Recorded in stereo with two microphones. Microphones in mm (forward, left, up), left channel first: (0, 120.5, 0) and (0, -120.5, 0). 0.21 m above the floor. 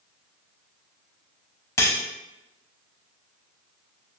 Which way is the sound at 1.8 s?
10° left (ahead or behind).